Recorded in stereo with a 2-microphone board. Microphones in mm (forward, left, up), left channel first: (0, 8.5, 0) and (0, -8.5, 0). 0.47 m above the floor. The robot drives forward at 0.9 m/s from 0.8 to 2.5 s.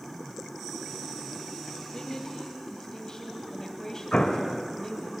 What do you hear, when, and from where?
1.9 s a woman speaking: 35° left (ahead or behind), 3 m; by 5.1 s 30° left (ahead or behind), 3 m
4.1 s an explosion: 60° left (ahead or behind), 1.6 m